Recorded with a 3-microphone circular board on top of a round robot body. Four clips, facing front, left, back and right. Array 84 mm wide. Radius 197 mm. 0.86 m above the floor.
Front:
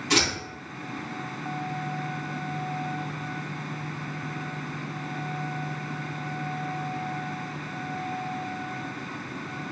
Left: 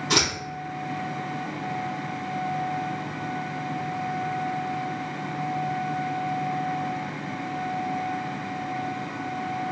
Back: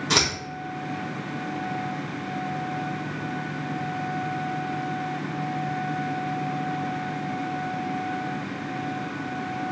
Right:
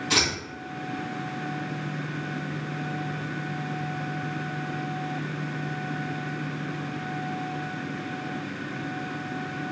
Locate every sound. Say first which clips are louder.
0.1 s scissors: left 2 dB, even; 160° left, 1.7 m